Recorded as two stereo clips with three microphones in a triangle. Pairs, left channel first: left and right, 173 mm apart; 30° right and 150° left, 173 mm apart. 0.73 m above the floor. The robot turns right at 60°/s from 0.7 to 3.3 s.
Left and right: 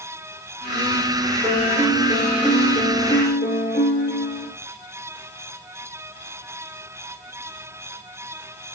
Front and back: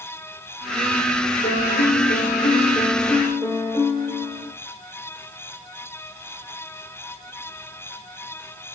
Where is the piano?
35° right, 6 m; by 4.5 s 75° left, 6 m.